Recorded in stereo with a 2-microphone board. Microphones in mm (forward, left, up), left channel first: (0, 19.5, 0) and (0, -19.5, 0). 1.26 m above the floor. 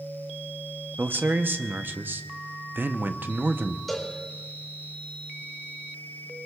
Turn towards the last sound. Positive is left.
turn(degrees=0)  # may be behind; listen again after turning